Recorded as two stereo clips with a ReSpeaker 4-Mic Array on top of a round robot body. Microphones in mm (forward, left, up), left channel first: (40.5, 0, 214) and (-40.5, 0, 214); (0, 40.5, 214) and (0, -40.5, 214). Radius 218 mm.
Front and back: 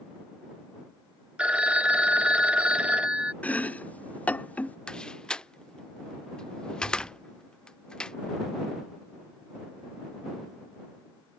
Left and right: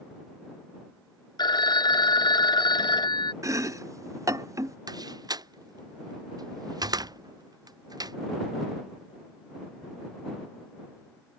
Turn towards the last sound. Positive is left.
turn(degrees=-75)